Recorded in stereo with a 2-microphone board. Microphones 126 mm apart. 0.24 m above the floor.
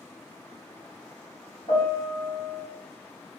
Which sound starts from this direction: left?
A piano, at 1.7 s.